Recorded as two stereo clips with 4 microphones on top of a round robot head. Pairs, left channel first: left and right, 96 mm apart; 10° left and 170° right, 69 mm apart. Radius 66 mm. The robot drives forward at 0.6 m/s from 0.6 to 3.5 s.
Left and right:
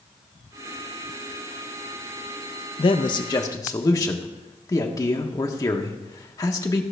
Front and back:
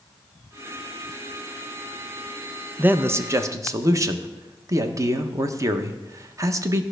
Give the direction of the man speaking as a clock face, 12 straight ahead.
8 o'clock.